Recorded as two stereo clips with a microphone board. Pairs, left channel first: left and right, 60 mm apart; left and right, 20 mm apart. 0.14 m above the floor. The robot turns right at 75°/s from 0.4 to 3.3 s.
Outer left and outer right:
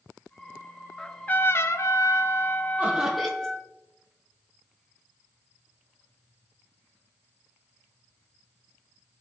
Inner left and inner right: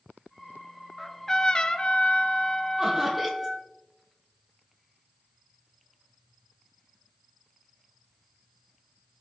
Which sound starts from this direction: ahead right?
Laughter, at 2.8 s.